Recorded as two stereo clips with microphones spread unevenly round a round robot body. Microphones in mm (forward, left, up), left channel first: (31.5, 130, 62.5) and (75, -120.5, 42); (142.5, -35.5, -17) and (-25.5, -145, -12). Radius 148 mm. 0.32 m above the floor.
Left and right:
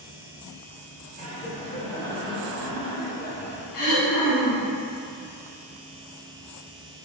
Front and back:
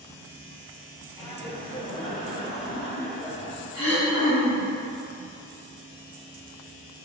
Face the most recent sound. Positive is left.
turn(degrees=100)